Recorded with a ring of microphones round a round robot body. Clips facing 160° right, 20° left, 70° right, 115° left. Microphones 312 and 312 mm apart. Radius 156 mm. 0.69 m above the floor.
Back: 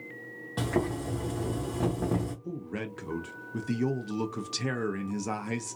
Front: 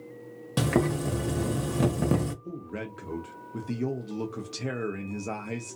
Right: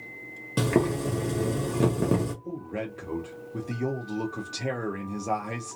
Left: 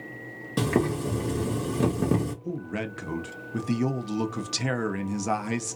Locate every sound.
0.6 s boiling: 25° left, 1.0 m
2.4 s a man speaking: 130° left, 0.5 m